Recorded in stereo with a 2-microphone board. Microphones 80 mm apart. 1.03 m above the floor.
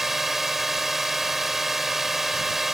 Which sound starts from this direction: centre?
A drone, at 0.0 s.